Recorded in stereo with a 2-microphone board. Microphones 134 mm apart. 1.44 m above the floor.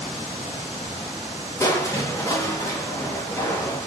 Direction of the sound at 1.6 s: 25° left (ahead or behind).